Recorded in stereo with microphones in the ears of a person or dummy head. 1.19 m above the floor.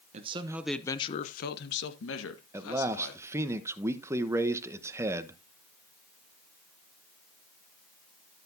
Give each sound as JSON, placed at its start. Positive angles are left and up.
{"t": 0.1, "sound": "a man speaking", "side_deg": -40, "distance_m": 0.9}
{"t": 2.5, "sound": "a man speaking", "side_deg": -15, "distance_m": 1.0}